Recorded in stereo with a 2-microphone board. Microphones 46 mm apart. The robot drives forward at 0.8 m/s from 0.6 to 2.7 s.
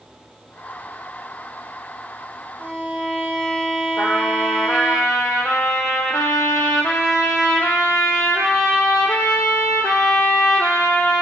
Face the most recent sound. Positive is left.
turn(degrees=85)